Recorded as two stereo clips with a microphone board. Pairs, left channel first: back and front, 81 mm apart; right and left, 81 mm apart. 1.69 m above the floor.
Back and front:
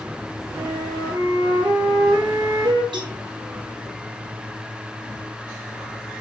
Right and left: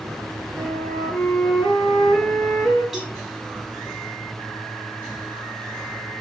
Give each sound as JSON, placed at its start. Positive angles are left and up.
{"t": 0.6, "sound": "a flute", "azimuth_deg": -15, "distance_m": 8.5}
{"t": 2.9, "sound": "a cowbell", "azimuth_deg": 5, "distance_m": 5.0}